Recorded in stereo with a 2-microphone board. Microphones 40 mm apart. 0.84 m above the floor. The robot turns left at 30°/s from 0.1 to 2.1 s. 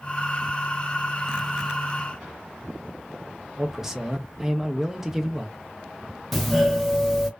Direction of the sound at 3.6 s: 10° right (ahead or behind).